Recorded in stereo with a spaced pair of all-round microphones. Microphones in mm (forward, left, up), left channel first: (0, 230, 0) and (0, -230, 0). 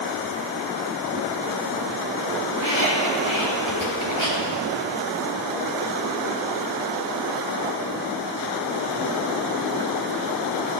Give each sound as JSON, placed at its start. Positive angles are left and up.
{"t": 2.5, "sound": "a squeak", "side_deg": 75, "distance_m": 4.5}